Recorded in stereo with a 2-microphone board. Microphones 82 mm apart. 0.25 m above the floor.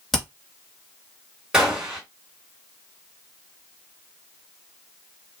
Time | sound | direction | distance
0.1 | hammering | centre (ahead or behind) | 2.5 m
1.5 | a gunshot | 10° right (ahead or behind) | 2.5 m